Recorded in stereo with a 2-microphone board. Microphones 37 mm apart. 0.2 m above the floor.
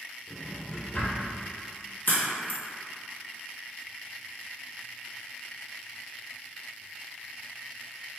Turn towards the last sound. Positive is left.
turn(degrees=70)  # may be behind; listen again after turning